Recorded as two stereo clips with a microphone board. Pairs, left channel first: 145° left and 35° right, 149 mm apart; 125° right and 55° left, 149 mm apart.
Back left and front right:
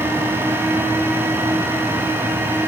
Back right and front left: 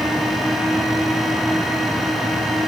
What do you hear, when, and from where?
Only background noise.